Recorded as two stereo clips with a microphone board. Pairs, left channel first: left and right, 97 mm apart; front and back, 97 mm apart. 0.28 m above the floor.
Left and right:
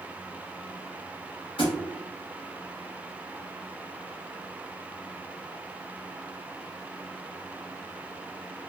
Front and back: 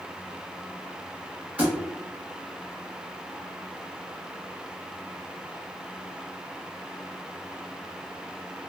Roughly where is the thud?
Left.